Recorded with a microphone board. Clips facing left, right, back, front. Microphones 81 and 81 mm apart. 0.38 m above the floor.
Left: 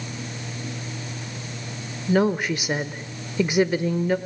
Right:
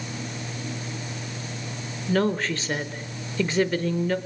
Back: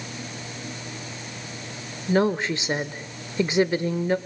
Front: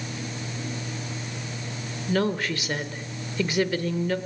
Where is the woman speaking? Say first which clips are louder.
Left 3 dB, back 4 dB; 150° left, 0.9 m.